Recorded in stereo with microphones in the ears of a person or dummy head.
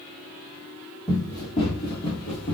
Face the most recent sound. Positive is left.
turn(degrees=35)  # may be behind; listen again after turning